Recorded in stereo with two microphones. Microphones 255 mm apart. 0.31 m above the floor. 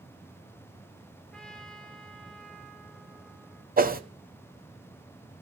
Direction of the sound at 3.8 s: 35° right (ahead or behind).